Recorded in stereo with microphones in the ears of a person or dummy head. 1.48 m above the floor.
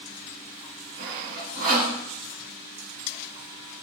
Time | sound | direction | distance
1.0 | sawing | 45° right (ahead or behind) | 4.5 m